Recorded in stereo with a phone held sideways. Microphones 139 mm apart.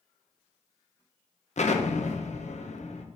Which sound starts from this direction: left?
An explosion, at 1.6 s.